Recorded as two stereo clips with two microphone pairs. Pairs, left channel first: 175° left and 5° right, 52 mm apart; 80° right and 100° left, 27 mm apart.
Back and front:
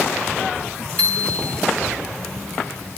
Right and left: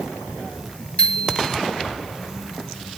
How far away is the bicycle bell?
About 2.5 m.